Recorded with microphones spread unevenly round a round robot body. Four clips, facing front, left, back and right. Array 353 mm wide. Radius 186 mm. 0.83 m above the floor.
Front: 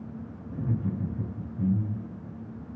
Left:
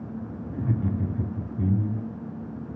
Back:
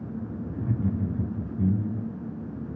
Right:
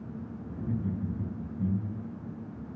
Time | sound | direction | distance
0.5 | laughter | 100° left | 2.5 m